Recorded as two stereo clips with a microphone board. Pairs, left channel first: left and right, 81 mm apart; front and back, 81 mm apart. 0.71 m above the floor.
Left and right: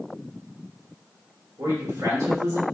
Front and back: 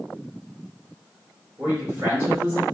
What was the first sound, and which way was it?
A man speaking, 130° right.